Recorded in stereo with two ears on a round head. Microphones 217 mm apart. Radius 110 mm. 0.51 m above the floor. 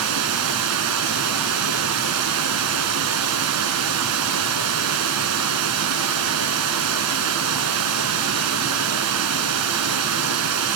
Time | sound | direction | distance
0.0 | running water | 75° right (ahead or behind) | 1.4 m